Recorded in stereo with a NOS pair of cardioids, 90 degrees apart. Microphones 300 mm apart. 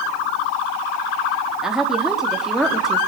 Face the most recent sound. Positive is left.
turn(degrees=0)